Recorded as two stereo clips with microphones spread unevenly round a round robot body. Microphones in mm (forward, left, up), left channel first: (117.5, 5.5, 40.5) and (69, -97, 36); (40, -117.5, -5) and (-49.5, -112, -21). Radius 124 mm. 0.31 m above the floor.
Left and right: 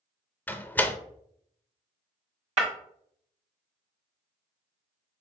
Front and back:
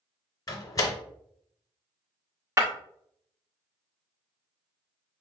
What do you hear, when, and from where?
0.5 s a door slam: straight ahead, 0.6 m
2.6 s breaking glass: 125° right, 1.5 m